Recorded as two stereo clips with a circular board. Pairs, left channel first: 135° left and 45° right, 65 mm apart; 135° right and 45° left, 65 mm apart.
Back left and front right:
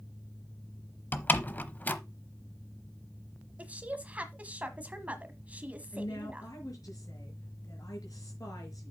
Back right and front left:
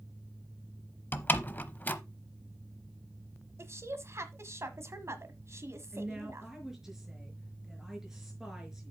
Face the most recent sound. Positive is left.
turn(degrees=125)